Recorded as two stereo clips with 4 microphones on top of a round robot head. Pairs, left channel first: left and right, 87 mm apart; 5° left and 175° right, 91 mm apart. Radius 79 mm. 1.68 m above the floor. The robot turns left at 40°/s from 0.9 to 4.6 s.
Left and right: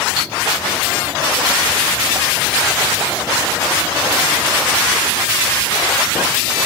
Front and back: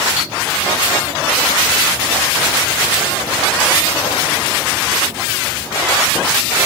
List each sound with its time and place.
0.2 s cutlery clinking: 95° right, 2.0 m